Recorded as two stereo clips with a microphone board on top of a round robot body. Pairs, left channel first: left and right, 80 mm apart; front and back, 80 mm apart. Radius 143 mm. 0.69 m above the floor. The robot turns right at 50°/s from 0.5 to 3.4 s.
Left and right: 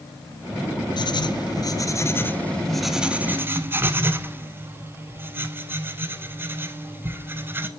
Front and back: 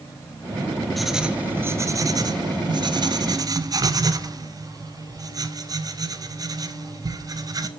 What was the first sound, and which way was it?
Writing, 90° left.